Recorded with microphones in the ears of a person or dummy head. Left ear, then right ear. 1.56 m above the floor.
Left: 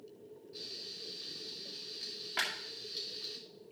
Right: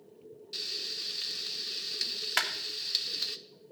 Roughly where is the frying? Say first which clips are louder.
Right 9 dB; right.